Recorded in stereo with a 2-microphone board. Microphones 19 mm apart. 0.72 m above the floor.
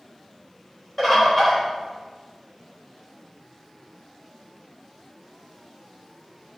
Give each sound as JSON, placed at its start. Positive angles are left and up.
{"t": 1.0, "sound": "a bird", "side_deg": 15, "distance_m": 3.0}